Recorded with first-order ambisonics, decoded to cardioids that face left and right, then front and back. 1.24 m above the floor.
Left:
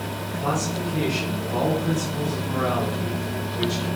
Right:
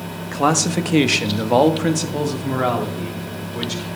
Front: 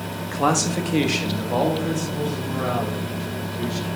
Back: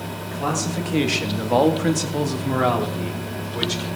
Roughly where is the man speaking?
Ahead right.